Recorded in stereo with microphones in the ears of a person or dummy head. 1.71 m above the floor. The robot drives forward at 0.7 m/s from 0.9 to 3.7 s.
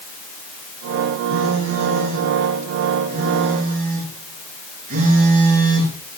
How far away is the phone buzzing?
About 5 m.